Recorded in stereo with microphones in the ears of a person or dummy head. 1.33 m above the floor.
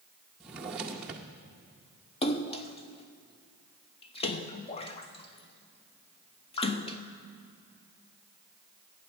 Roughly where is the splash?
Left.